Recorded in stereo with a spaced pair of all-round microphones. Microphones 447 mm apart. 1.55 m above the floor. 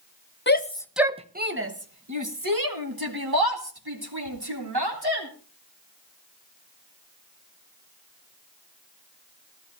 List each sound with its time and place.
0.5 s a shout: 25° left (ahead or behind), 0.8 m; by 5.3 s 65° right (ahead or behind), 3.5 m